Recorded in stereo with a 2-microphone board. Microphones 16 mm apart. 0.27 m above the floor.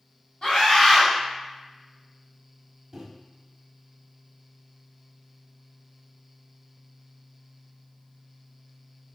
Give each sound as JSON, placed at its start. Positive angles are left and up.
{"t": 0.4, "sound": "a scream", "side_deg": 40, "distance_m": 1.7}
{"t": 2.9, "sound": "a microwave", "side_deg": -20, "distance_m": 1.0}